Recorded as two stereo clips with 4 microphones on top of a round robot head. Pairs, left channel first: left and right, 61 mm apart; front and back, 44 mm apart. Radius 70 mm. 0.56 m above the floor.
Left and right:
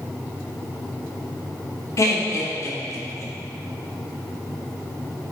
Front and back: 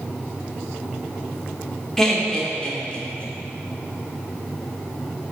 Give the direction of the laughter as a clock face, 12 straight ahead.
9 o'clock.